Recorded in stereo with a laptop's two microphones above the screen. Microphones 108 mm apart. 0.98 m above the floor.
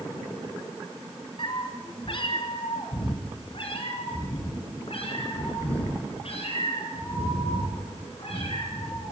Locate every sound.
1.4 s a cat meowing: 50° left (ahead or behind), 2.5 m; by 9.1 s 65° left (ahead or behind), 7 m